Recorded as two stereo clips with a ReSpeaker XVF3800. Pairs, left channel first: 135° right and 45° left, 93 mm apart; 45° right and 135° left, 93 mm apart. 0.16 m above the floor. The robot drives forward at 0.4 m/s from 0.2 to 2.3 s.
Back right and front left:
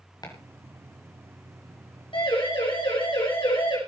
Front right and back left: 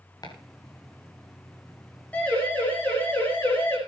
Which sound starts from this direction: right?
Chopping, at 0.2 s.